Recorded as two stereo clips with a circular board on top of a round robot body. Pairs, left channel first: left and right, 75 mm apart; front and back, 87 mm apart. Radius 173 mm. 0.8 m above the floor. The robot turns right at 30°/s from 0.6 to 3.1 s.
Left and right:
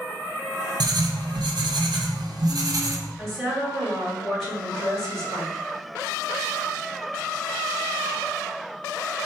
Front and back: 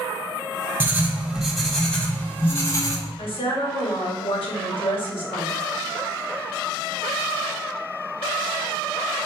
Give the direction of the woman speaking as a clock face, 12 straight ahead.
12 o'clock.